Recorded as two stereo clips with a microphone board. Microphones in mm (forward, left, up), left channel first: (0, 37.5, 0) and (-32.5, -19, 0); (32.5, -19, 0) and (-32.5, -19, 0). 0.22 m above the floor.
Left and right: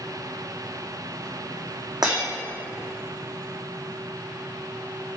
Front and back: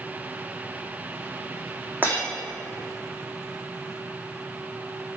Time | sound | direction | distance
2.0 | breaking glass | 120° right | 3 m